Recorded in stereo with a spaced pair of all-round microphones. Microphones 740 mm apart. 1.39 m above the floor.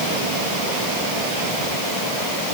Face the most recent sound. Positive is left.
No sound to turn to.